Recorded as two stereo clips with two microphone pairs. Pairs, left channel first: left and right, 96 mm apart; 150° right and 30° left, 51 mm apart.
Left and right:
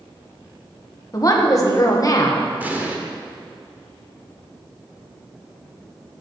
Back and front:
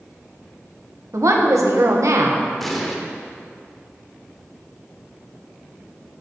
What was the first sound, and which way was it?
A woman speaking, 40° left.